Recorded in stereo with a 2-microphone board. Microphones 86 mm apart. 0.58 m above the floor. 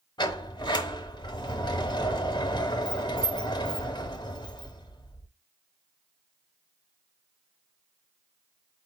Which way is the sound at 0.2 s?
55° left (ahead or behind).